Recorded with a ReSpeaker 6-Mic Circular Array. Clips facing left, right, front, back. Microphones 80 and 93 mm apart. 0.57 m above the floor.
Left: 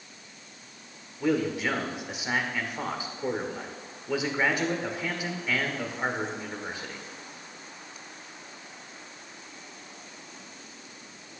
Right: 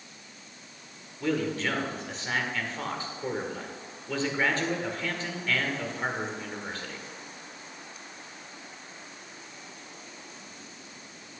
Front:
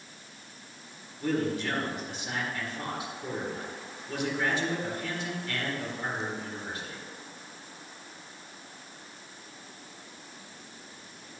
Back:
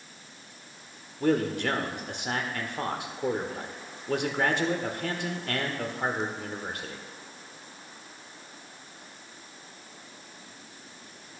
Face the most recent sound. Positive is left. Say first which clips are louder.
# left 2 dB, back 4 dB
turn(degrees=165)